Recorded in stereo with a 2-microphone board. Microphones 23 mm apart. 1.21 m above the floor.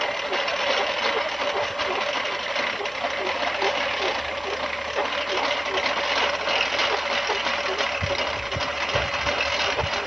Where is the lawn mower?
5° left (ahead or behind); by 10.1 s 10° right (ahead or behind).